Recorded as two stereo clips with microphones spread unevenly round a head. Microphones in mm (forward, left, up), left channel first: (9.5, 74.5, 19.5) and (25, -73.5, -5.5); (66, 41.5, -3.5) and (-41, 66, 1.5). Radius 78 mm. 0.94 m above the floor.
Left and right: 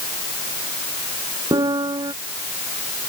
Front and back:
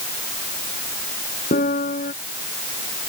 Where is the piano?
20° right.